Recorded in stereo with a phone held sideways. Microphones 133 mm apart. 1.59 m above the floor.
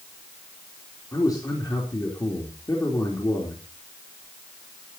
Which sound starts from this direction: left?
A man speaking, at 1.1 s.